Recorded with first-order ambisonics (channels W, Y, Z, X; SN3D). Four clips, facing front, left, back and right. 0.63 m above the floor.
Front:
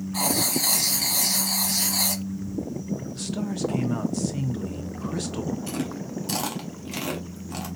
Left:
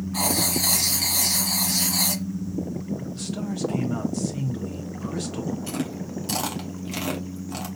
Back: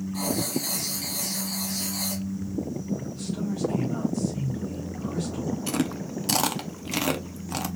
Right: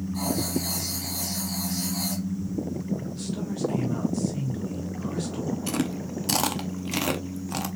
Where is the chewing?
145° right, 0.6 m.